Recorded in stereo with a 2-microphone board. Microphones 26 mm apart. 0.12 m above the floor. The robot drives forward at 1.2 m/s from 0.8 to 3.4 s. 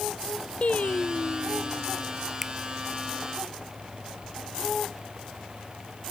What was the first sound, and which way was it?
Singing, 55° left (ahead or behind).